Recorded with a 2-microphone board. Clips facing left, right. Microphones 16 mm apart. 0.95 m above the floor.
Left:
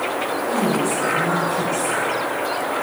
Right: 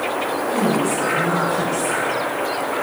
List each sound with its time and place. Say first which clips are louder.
0.5 s a woman speaking: right 1 dB; 10° left (ahead or behind), 5.5 m